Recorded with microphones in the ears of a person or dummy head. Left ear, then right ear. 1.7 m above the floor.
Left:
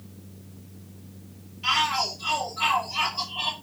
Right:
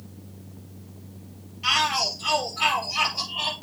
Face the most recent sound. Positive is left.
turn(degrees=-20)  # may be behind; listen again after turning